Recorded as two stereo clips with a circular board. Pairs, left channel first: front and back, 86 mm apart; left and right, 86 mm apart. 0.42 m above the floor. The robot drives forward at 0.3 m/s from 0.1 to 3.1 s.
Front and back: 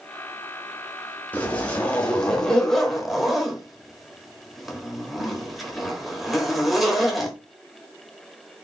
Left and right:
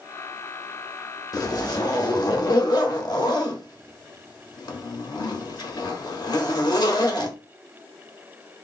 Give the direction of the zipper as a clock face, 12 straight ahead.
10 o'clock.